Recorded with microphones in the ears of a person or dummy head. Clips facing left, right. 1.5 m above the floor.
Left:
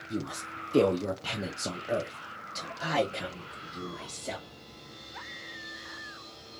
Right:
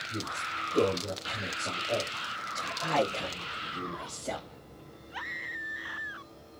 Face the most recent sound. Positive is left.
turn(degrees=5)  # may be behind; listen again after turning